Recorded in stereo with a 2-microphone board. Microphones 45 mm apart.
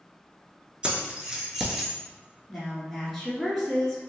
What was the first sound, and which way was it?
Keys jangling, 25° right (ahead or behind).